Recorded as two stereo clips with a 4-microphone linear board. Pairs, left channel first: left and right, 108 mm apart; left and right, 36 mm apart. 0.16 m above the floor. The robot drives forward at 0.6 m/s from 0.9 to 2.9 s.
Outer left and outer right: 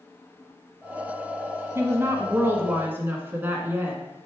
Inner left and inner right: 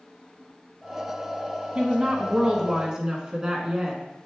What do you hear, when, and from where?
1.8 s a woman speaking: 25° right (ahead or behind), 1.1 m; by 4.0 s 20° right (ahead or behind), 1.4 m